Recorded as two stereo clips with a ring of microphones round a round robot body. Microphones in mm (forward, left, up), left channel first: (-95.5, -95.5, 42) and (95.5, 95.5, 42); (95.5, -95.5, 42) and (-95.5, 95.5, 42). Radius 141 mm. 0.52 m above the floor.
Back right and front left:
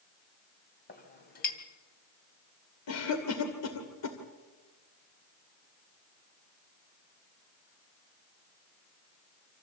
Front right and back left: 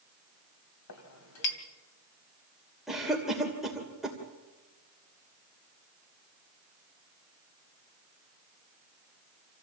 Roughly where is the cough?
Behind right.